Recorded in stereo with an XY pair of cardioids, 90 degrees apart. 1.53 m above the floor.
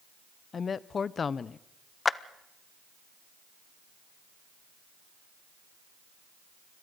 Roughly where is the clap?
Ahead left.